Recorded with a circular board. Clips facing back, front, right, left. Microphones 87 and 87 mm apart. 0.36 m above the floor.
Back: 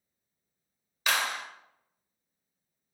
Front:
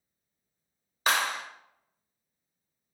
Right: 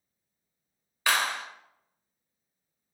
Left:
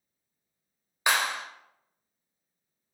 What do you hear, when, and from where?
1.1 s a clap: 30° left, 0.8 m